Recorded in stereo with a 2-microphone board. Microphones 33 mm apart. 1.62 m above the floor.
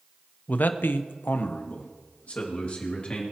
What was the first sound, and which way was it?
A man speaking, 50° left (ahead or behind).